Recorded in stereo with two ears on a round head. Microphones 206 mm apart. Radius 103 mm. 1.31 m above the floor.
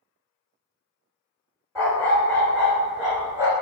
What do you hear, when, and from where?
1.8 s a dog barking: 10° left (ahead or behind), 1.7 m; by 3.5 s 15° right (ahead or behind), 1.1 m